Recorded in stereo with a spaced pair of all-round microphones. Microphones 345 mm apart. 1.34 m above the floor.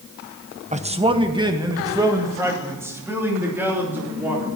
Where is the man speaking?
20° right (ahead or behind), 0.9 m; by 4.5 s 5° right (ahead or behind), 4.5 m.